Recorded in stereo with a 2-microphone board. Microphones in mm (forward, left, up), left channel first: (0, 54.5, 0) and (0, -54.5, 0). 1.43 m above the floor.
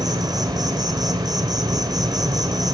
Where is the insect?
35° right (ahead or behind), 1.1 m.